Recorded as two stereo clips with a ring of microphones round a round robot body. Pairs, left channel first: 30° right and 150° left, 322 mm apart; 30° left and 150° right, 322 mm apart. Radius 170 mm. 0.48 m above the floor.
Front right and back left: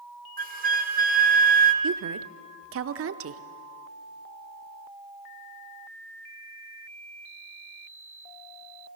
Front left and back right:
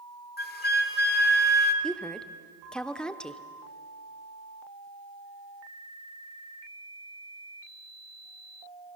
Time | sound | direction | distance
0.4 | a flute | 90° left | 1.3 m
1.8 | a woman speaking | 115° left | 1.0 m